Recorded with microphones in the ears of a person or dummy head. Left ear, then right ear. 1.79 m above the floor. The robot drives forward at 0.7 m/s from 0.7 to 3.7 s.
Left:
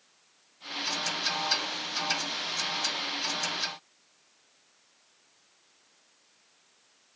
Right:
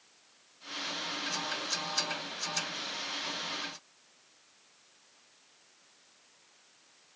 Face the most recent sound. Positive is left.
No sound to turn to.